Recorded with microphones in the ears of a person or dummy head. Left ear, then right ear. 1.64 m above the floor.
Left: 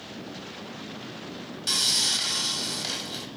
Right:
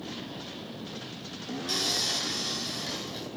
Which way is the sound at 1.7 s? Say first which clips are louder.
Left 5 dB; 65° left (ahead or behind).